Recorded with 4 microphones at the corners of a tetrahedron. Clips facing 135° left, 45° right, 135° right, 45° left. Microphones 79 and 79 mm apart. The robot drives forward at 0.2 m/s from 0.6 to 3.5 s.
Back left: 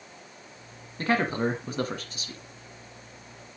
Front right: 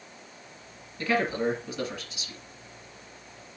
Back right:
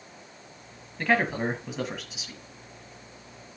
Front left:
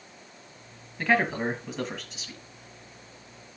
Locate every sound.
1.0 s a man speaking: 130° left, 1.5 m; by 2.4 s 140° left, 1.6 m